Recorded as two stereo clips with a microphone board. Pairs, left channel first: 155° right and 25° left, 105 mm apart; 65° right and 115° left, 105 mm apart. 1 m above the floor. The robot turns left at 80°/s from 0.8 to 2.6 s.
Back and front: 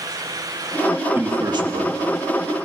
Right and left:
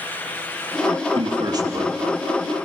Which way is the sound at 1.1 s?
95° left.